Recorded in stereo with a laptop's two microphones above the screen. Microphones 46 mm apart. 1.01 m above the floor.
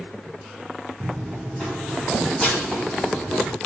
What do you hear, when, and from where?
1.0 s running footsteps: 5° right (ahead or behind), 1.4 m; by 3.6 s 15° left (ahead or behind), 2.5 m